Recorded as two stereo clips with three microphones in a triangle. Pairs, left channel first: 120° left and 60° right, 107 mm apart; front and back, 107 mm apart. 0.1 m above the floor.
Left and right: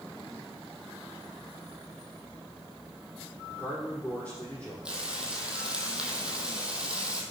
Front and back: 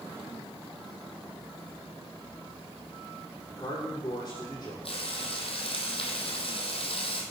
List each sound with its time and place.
3.5 s a man speaking: 45° left, 4.5 m
4.8 s frying: 20° left, 1.5 m